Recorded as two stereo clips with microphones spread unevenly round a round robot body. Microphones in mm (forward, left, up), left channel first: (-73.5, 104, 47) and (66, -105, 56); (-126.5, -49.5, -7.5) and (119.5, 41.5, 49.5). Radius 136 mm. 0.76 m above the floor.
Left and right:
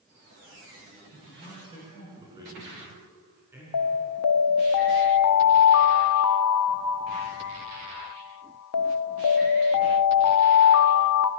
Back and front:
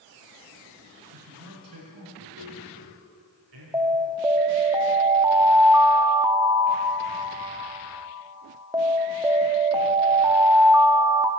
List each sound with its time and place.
1.1 s a man speaking: 15° left, 7 m; by 3.6 s 25° left, 7.5 m
3.7 s an alarm: 100° left, 0.9 m